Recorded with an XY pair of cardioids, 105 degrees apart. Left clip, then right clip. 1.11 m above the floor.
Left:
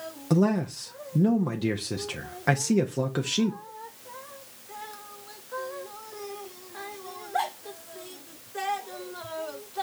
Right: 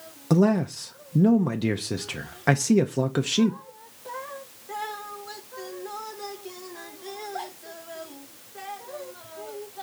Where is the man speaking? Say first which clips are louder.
Right 3 dB; 20° right, 0.5 m.